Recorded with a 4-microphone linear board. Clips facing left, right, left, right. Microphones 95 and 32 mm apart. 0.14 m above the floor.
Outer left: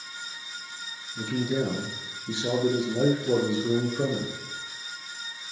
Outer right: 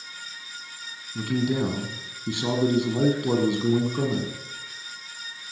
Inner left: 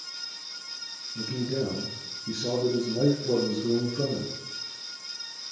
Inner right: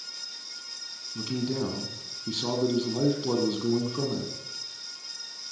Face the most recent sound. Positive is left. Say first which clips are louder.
# outer right 2 dB, even
turn(degrees=-65)  # may be behind; listen again after turning